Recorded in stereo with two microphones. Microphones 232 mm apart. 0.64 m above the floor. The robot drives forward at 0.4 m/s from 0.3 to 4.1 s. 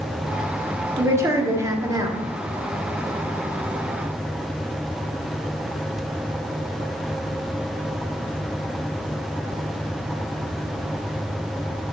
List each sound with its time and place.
1.0 s a woman speaking: 10° right (ahead or behind), 1.3 m; by 2.2 s 15° right (ahead or behind), 0.9 m